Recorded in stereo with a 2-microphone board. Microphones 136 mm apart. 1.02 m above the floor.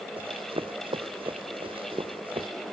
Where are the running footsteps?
40° right (ahead or behind).